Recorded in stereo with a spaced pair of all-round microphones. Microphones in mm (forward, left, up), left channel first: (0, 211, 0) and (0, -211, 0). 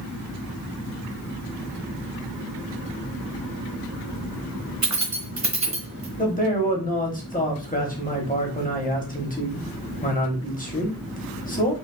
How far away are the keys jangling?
About 0.9 m.